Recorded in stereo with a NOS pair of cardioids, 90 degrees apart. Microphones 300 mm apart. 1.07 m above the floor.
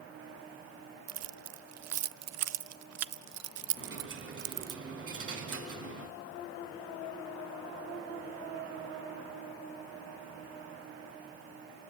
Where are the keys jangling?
60° right, 0.5 m.